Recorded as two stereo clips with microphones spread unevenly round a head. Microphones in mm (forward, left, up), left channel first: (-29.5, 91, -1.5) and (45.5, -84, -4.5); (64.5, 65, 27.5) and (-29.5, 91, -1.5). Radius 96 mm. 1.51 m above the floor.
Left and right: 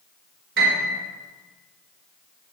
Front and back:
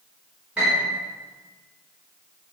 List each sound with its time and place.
0.6 s a piano: 110° right, 4.5 m